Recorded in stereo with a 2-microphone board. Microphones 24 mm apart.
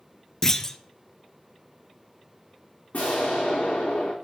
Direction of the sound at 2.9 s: 80° left.